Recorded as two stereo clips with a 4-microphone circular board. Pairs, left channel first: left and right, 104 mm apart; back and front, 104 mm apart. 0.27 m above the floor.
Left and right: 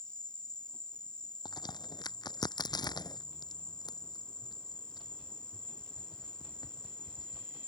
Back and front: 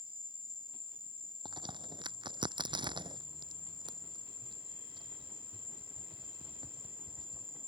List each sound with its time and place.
0.0 s an insect: 10° left
1.4 s a crack: 40° left